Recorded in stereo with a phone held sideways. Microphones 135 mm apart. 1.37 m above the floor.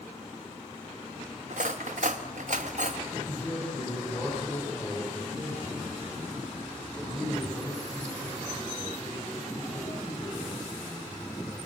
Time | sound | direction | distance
1.5 | cutlery clinking | 65° right (ahead or behind) | 1.2 m
3.1 | a man speaking | 25° left (ahead or behind) | 7 m